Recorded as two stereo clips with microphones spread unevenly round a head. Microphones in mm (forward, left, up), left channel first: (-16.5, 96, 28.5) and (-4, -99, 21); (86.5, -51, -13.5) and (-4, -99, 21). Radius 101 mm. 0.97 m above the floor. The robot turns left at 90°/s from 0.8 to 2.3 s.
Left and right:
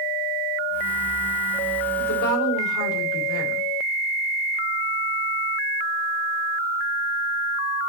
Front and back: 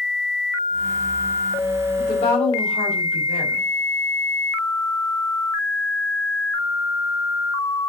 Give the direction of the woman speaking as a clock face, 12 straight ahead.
9 o'clock.